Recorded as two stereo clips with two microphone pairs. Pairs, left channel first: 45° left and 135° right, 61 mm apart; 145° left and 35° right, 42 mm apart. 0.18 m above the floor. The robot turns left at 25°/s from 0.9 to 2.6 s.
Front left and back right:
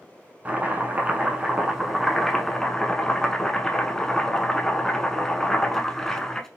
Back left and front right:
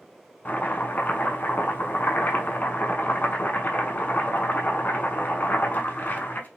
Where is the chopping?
165° left, 0.6 m; by 6.5 s 125° left, 0.6 m.